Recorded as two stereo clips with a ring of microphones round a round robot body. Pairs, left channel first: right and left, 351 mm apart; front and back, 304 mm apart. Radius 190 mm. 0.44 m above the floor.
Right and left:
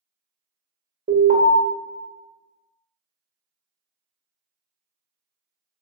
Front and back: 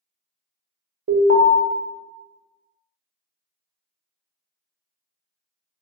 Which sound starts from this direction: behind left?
An alarm, at 1.1 s.